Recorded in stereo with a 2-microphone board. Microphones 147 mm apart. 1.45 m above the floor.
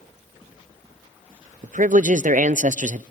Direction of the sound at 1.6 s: 60° right (ahead or behind).